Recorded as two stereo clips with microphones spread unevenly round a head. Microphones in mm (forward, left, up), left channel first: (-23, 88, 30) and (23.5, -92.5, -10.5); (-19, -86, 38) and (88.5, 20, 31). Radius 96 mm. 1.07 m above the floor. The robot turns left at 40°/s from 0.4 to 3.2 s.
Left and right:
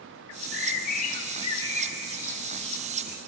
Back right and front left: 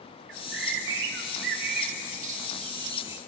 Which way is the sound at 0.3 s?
80° left.